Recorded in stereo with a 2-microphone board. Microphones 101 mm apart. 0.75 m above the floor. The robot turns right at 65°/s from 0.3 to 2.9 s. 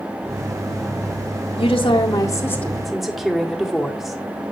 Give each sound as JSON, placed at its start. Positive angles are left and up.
{"t": 1.6, "sound": "a woman speaking", "azimuth_deg": 95, "distance_m": 1.7}